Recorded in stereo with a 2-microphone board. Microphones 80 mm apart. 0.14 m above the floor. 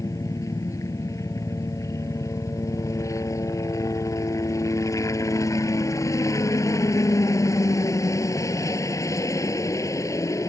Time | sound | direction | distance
0.0 | a helicopter | 40° left (ahead or behind) | ?